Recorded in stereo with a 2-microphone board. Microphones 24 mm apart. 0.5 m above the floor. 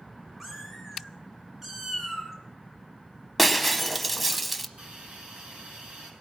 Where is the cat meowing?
10° right (ahead or behind), 3.5 m; by 2.3 s 15° right (ahead or behind), 4.5 m.